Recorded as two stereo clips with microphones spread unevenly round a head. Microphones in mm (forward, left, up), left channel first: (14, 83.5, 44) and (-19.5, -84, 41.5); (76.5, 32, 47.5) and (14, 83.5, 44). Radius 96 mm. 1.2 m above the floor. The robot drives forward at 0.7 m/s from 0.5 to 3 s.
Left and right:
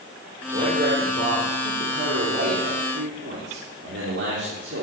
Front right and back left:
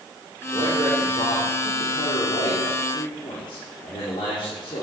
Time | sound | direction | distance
0.5 | a man speaking | 60° right | 5 m